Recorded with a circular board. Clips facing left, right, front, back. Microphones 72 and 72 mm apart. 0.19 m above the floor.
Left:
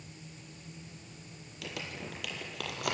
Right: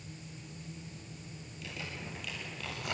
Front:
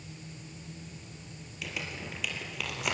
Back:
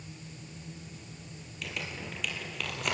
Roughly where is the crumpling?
Left.